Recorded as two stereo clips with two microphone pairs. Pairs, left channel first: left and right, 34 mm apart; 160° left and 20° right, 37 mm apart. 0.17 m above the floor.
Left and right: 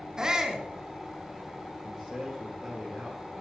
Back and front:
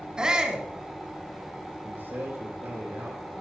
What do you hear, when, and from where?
0.2 s a shout: 60° right, 1.7 m
1.8 s a man speaking: 5° left, 4.5 m